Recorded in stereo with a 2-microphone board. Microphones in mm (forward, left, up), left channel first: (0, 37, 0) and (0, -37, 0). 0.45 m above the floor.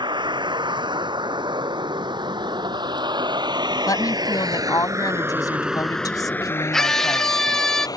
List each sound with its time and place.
0.0 s a vehicle: 90° right; by 8.0 s 55° left (ahead or behind)
3.9 s a woman speaking: 50° left (ahead or behind)
6.7 s a scream: 5° left (ahead or behind)